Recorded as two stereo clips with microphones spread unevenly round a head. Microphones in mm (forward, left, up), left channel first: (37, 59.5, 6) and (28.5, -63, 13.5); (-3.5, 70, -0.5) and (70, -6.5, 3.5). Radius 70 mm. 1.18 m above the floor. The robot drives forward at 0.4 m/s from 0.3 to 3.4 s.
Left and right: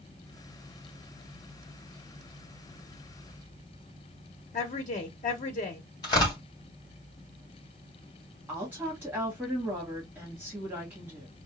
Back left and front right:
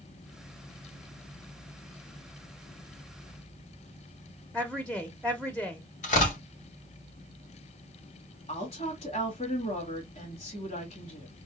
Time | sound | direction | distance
4.5 | a woman speaking | 50° left | 0.8 m
6.0 | tearing paper | 150° left | 2.5 m
8.5 | a woman speaking | 170° right | 1.8 m